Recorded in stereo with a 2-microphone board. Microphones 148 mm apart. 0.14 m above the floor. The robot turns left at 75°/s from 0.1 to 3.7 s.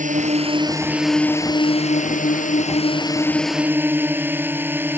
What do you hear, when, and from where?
0.0 s a drone: 105° right; by 5.0 s 15° right